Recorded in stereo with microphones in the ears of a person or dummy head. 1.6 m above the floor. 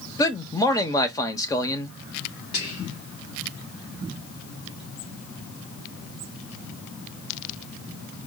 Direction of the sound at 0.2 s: 15° left (ahead or behind).